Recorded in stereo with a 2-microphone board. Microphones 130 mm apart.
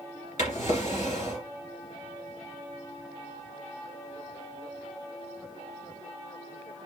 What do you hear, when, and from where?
0.4 s a drawer: 65° left (ahead or behind), 2 m